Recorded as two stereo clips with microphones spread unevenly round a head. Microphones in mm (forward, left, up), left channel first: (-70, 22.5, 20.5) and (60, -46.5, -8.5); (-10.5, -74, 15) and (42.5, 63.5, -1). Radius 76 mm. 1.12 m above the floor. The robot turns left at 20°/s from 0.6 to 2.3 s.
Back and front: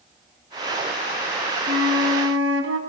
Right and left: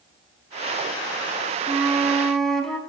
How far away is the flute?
About 3.5 m.